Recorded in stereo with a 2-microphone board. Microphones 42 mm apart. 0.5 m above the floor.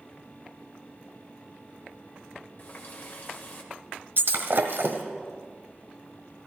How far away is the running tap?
About 1.4 m.